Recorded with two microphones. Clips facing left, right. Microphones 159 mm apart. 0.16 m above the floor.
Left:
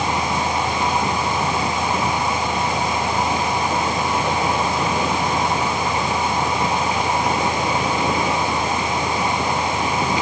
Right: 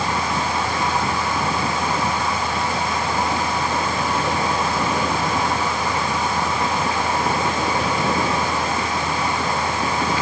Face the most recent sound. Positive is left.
No sound to turn to.